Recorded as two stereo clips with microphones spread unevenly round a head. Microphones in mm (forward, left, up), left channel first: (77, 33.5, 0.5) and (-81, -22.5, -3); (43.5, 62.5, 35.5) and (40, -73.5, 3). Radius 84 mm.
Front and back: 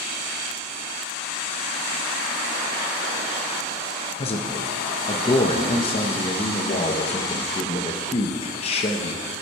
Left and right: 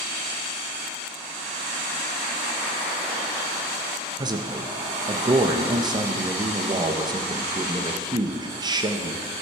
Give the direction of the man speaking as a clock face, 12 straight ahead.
1 o'clock.